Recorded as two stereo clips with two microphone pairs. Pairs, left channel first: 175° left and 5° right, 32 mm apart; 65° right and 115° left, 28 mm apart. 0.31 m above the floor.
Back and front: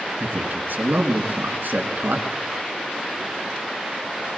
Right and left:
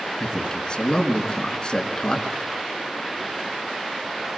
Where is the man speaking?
10° right, 4 m.